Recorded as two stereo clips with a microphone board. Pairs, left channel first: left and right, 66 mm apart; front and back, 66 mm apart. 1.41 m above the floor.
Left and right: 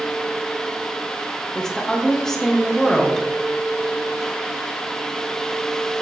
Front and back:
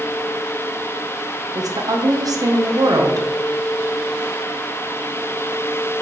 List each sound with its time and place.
1.6 s a woman speaking: 175° left, 1.0 m